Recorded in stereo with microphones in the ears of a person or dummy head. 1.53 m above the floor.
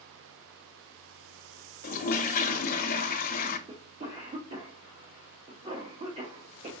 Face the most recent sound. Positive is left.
turn(degrees=-35)  # may be behind; listen again after turning